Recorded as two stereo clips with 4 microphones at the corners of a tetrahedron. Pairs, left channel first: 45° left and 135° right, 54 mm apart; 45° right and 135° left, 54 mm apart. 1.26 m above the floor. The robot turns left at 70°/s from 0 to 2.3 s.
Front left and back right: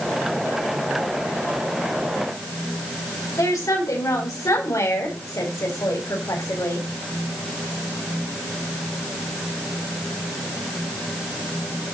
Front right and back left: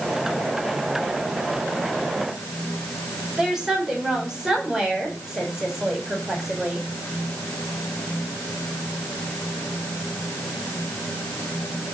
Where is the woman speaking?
50° left, 4.5 m.